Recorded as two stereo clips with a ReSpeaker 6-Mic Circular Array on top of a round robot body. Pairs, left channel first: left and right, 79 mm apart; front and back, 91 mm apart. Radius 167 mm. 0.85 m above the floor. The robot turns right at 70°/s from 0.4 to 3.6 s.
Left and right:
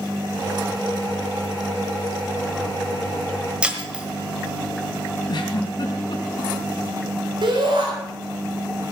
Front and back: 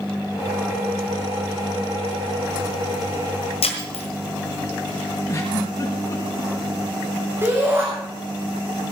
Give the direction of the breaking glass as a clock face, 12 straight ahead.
12 o'clock.